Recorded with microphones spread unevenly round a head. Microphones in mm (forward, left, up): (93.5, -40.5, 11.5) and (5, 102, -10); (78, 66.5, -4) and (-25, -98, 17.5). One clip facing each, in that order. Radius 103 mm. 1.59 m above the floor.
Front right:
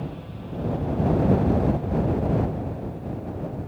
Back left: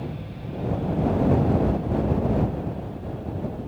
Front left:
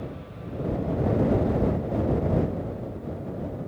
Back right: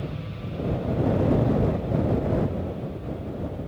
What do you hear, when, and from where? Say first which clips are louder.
0.0 s an aircraft: back left 1 dB, back right 2 dB; 160° right; by 3.7 s 175° right